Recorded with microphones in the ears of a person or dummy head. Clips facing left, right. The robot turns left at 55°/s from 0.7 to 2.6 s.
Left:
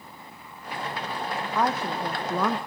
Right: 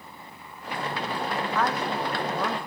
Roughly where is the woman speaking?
Behind.